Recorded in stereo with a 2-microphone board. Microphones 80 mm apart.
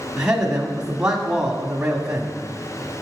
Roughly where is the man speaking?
Centre.